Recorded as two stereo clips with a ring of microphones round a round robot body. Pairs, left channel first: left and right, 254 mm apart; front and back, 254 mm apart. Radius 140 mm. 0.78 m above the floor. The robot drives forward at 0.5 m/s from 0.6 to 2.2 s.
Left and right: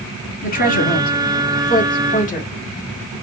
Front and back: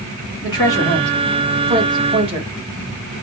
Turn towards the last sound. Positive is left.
turn(degrees=125)